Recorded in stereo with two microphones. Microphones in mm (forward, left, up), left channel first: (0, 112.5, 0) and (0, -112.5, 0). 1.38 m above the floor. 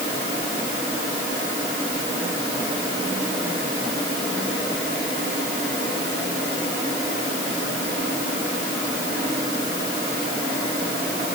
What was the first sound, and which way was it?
Only background noise.